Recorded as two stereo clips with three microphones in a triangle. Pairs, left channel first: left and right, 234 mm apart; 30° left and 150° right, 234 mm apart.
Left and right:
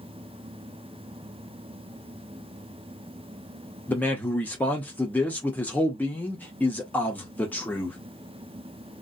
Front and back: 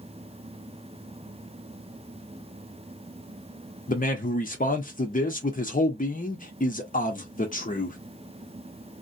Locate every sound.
3.9 s a man speaking: 10° left, 0.7 m